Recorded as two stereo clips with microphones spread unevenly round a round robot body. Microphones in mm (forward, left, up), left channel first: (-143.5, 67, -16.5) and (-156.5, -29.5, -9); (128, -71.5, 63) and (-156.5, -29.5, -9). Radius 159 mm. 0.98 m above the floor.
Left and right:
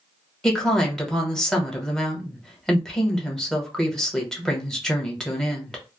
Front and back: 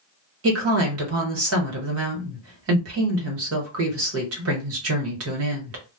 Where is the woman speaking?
165° left, 1.3 m.